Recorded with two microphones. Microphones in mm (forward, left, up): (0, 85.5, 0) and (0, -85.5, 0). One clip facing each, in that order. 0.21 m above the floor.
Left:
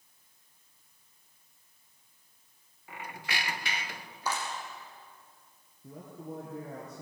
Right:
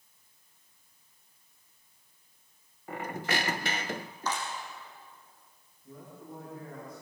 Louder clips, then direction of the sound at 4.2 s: Even; 10° left (ahead or behind).